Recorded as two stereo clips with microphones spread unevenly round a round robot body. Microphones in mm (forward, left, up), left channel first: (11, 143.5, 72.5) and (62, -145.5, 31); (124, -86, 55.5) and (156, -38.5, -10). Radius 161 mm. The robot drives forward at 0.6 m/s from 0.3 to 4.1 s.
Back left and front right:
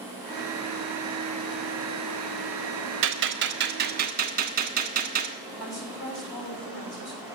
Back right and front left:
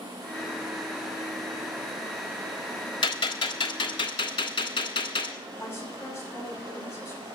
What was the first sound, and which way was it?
A gunshot, 110° right.